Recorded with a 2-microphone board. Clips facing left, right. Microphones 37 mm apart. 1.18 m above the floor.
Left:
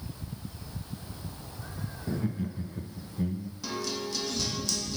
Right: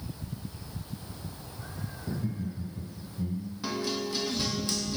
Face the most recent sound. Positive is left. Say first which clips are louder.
# right 2 dB
turn(degrees=-20)  # may be behind; listen again after turning